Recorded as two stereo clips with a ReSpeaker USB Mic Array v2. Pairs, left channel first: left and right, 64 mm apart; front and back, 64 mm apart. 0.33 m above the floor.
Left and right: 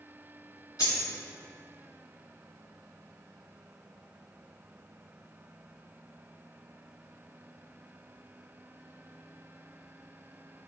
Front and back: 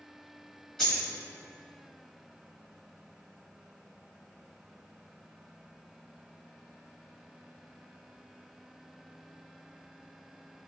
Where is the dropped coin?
80° left, 1.5 m.